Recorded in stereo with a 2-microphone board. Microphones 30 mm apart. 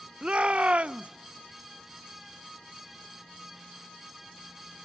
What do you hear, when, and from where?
0.2 s a shout: 50° right (ahead or behind), 0.5 m